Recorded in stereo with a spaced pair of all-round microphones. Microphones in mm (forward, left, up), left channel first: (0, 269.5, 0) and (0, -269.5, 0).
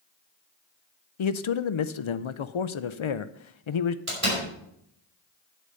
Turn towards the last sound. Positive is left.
turn(degrees=-70)  # may be behind; listen again after turning